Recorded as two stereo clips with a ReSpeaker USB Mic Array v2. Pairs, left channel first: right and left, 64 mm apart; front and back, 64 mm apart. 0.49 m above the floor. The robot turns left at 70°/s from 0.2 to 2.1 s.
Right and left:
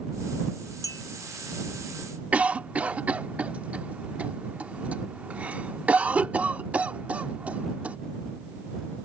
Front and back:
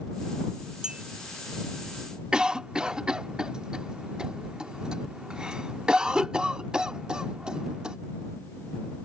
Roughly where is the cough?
Behind left.